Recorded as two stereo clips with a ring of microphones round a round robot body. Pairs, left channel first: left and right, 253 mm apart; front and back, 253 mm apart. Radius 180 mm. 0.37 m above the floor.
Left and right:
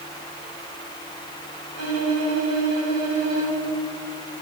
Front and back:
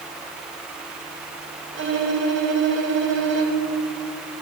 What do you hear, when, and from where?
1.7 s a violin: 140° left, 4 m